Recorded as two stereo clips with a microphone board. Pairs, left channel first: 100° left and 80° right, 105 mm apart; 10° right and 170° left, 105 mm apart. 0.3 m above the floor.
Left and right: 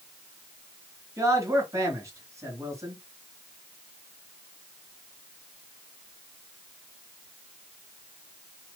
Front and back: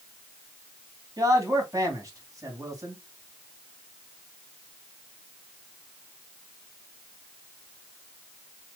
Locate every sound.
1.2 s a man speaking: 135° right, 2.5 m